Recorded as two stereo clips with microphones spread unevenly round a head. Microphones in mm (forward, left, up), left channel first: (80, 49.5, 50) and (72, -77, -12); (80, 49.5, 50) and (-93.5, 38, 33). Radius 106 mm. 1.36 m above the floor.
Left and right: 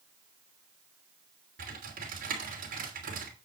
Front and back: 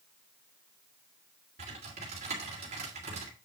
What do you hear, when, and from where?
1.6 s typing on a keyboard: 120° right, 3 m